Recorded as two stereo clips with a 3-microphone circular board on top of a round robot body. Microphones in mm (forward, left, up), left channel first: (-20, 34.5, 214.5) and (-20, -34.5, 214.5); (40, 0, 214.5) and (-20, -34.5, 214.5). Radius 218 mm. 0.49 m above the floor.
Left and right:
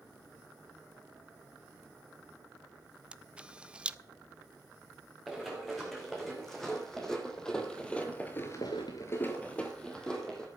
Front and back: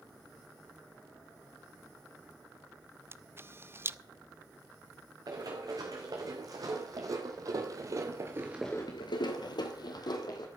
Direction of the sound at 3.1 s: 155° right.